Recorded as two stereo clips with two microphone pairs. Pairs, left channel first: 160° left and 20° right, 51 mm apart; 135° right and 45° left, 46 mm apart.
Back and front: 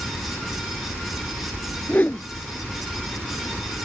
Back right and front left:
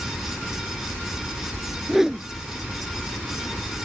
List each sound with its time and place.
1.9 s a whoosh: 120° left